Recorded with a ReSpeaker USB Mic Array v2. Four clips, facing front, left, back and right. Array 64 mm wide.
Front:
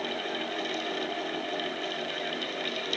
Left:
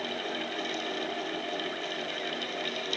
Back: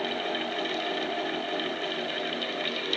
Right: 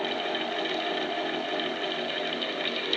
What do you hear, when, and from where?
Only background noise.